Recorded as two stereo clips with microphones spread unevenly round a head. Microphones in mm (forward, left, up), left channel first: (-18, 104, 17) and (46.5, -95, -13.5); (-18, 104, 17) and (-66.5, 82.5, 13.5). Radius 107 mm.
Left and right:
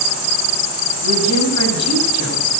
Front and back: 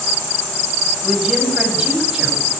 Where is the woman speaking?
130° left, 7.5 m; by 2.5 s 125° left, 9.5 m.